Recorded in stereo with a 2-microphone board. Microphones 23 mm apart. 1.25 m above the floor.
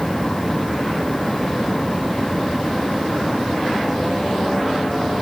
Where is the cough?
No cough in this recording.